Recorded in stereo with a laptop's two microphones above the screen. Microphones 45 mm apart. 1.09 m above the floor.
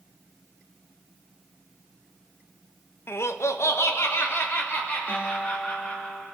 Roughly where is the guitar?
Left.